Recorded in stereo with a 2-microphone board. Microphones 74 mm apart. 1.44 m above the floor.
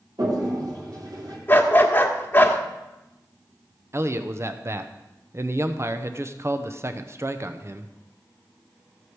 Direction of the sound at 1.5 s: 25° left (ahead or behind).